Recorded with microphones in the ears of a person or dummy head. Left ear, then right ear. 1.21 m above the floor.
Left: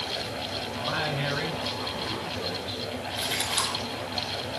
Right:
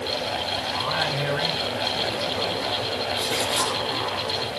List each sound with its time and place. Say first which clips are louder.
0.8 s a man speaking: right 2 dB; centre (ahead or behind), 4 m
3.2 s a splash: right 2 dB; centre (ahead or behind), 5.5 m